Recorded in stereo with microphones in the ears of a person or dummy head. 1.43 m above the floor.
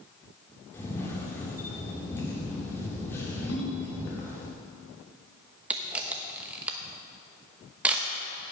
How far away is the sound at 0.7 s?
About 2 m.